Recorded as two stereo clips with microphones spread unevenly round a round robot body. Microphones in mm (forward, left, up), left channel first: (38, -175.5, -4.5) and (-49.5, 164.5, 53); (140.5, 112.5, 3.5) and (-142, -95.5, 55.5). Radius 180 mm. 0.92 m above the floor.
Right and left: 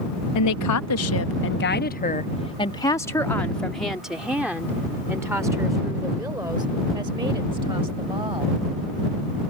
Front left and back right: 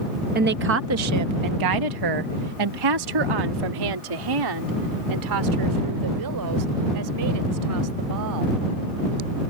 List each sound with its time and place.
0.3 s a woman speaking: 80° right; by 8.5 s straight behind